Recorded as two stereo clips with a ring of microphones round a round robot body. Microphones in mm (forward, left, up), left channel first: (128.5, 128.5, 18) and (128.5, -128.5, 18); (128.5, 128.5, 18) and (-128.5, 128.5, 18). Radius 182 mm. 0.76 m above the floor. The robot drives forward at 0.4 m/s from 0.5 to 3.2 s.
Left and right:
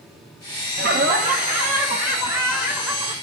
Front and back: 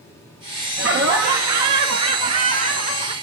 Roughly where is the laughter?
Behind right.